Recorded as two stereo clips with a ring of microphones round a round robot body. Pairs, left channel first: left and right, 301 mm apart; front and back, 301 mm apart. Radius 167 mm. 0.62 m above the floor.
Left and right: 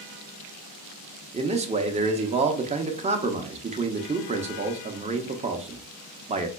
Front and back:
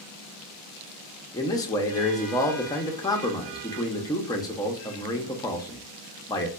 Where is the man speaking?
60° right, 0.6 m.